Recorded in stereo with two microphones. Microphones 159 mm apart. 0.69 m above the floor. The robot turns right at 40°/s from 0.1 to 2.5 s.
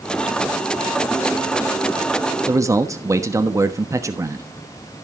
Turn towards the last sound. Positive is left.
turn(degrees=-20)  # may be behind; listen again after turning